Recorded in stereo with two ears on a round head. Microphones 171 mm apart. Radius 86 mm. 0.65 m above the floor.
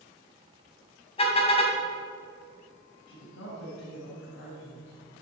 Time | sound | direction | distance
1.2 | a car horn | 30° left (ahead or behind) | 3 m
3.1 | a woman speaking | 70° left (ahead or behind) | 4.5 m